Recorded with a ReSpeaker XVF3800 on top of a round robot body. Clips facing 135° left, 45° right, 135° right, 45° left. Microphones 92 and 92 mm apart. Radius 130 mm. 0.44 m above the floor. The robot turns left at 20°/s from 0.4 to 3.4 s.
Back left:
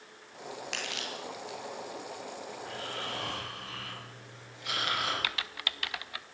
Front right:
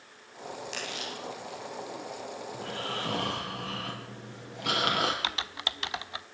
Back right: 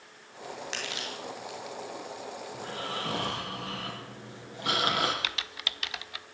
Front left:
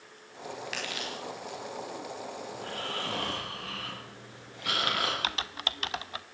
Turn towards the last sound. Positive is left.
turn(degrees=10)